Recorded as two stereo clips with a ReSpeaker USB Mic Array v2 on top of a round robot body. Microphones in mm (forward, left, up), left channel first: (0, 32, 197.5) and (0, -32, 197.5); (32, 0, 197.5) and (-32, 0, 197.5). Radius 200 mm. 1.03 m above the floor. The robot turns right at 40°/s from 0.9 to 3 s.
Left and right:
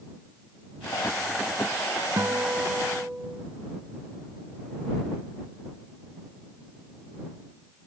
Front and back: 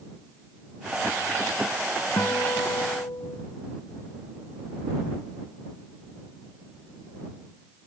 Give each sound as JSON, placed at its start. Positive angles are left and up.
{"t": 2.2, "sound": "a guitar", "azimuth_deg": -45}